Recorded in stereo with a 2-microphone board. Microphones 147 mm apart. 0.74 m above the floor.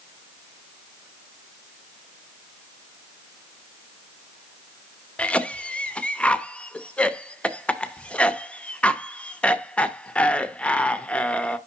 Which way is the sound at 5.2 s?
10° left (ahead or behind).